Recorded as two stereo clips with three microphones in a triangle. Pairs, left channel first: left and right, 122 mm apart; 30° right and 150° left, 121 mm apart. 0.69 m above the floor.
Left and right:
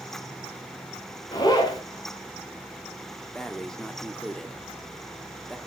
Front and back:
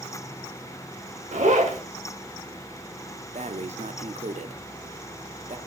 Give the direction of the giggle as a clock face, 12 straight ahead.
I don't hear a giggle.